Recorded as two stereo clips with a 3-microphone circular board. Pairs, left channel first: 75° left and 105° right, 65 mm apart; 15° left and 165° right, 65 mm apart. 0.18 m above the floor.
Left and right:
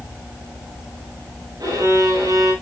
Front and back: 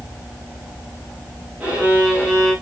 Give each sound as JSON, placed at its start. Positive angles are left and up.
{"t": 1.6, "sound": "a violin", "azimuth_deg": -90, "distance_m": 7.0}